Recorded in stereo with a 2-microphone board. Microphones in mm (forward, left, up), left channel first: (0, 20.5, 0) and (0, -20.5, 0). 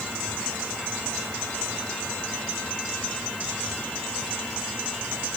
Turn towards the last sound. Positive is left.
No sound to turn to.